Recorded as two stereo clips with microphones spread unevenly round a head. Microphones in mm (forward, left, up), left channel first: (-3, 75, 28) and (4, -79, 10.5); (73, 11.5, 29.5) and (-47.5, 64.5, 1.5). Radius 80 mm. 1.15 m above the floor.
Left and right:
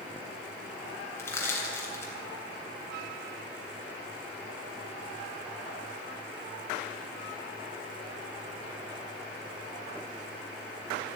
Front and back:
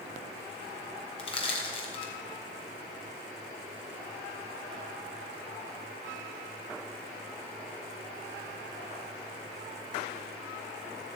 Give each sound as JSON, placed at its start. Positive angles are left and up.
{"t": 1.2, "sound": "crushing", "azimuth_deg": 20, "distance_m": 3.5}